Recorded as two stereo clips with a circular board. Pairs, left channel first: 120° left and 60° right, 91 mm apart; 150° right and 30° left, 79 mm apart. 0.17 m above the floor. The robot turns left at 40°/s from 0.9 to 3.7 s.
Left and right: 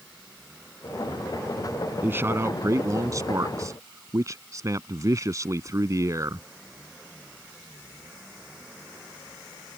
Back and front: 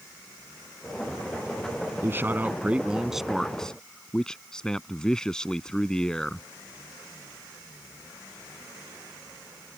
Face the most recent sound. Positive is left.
turn(degrees=-75)